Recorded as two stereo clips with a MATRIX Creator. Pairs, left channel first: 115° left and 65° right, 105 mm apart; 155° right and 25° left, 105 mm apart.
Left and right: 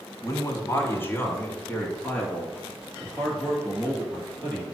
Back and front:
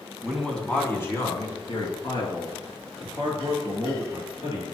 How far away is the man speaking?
About 1.5 m.